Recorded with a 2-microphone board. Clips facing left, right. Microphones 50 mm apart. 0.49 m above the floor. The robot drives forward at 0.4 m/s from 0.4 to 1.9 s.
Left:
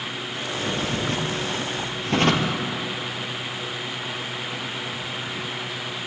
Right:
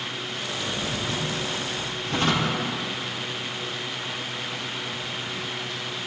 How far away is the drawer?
About 2.5 m.